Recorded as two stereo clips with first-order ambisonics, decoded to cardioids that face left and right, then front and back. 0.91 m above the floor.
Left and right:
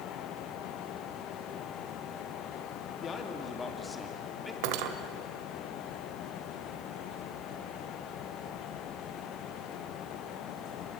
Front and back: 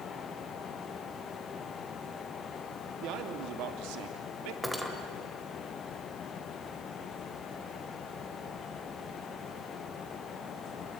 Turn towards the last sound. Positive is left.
turn(degrees=-90)